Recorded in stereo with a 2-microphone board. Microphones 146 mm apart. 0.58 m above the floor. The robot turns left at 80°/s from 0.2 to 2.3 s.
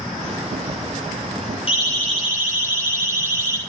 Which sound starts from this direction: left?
A siren, at 1.7 s.